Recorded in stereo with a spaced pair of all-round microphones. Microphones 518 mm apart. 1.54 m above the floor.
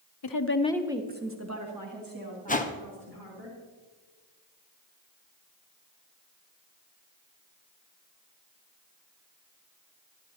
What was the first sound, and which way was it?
A woman speaking, 50° left (ahead or behind).